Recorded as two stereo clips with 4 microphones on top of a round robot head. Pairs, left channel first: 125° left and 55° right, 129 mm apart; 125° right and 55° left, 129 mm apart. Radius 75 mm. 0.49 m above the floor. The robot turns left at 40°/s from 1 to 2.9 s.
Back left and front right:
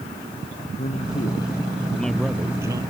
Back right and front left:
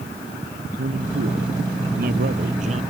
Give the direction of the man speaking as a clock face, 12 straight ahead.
9 o'clock.